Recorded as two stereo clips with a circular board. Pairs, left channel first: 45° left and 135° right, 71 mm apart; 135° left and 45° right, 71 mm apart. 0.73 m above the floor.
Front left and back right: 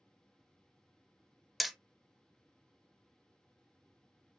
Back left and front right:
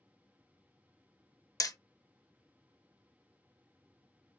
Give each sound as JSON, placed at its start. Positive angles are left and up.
{"t": 1.6, "sound": "hammering", "azimuth_deg": 140, "distance_m": 0.5}